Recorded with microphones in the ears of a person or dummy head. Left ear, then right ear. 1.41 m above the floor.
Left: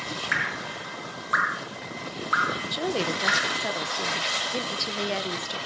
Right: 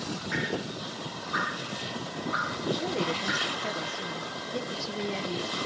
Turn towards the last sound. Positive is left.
turn(degrees=40)  # may be behind; listen again after turning